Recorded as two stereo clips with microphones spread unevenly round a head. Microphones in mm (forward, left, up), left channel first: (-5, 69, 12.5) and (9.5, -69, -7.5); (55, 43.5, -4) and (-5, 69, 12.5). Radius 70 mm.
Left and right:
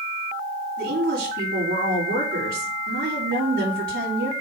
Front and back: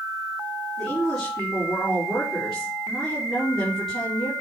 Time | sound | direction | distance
0.8 | a woman speaking | 110° right | 3.5 m